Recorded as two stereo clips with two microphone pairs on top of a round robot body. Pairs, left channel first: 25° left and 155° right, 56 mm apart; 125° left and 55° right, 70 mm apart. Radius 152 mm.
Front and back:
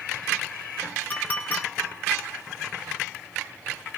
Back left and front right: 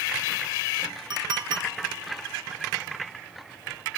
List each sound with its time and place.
1.1 s a clink: 30° right, 1.9 m